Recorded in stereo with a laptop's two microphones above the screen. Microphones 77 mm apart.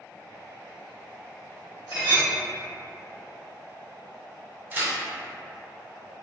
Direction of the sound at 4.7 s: 25° right (ahead or behind).